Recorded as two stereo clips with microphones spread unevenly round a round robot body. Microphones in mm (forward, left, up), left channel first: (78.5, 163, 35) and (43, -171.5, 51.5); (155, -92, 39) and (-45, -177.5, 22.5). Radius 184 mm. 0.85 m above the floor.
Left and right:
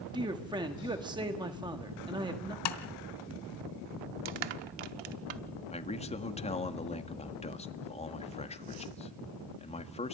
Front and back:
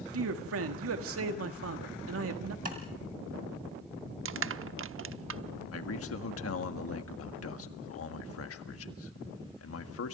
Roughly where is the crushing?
Behind right.